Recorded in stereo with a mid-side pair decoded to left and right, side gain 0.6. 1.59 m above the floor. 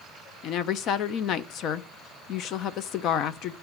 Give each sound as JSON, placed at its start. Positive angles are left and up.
{"t": 0.4, "sound": "a woman speaking", "azimuth_deg": 60, "distance_m": 0.7}